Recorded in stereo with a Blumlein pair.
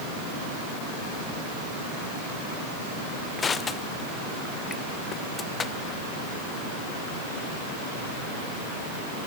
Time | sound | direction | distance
3.4 | crushing | 20° left | 1.0 m